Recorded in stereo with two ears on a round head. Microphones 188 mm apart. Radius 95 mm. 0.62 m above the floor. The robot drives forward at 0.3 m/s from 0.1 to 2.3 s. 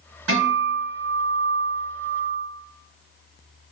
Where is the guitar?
80° right, 1.4 m; by 2.5 s 60° right (ahead or behind), 1.6 m.